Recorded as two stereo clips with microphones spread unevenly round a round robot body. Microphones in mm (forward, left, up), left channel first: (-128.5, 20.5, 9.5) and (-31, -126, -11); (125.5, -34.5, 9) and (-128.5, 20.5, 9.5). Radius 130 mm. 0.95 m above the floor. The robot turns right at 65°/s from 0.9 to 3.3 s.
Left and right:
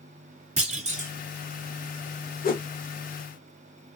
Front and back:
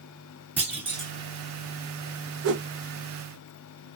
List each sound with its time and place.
0.6 s a clunk: 110° right, 1.6 m; by 1.1 s 95° right, 1.6 m
2.4 s a whoosh: 150° left, 1.1 m; by 2.7 s 165° left, 1.1 m